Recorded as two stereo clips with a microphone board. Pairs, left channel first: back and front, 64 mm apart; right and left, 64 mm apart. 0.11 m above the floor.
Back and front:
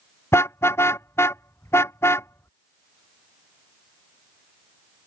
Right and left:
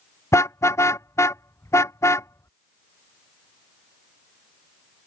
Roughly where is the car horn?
Behind right.